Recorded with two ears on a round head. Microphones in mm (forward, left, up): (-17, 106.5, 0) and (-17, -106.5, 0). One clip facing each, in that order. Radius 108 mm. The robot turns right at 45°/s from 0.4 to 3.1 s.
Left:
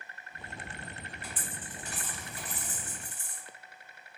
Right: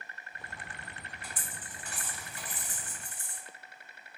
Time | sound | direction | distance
1.2 | a dropped coin | 10° left (ahead or behind) | 2.0 m